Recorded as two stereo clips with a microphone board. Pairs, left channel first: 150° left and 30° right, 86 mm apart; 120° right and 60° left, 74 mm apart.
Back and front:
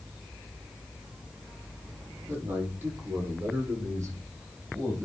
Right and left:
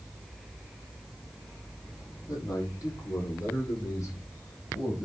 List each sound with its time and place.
2.3 s a man speaking: 90° right, 5 m; by 5.1 s 80° right, 6.5 m